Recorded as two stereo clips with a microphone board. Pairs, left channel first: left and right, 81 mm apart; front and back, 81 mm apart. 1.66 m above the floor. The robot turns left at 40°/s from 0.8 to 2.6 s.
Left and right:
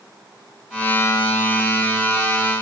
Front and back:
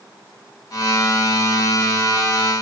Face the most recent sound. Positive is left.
No sound to turn to.